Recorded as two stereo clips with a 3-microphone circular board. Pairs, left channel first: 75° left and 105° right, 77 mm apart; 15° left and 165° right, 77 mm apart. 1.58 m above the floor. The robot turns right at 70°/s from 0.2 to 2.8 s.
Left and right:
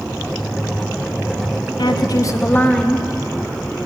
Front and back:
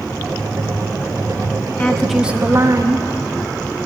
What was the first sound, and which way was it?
A woman speaking, 85° left.